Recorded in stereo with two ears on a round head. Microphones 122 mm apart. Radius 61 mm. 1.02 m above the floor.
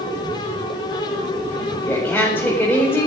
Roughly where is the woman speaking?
Centre.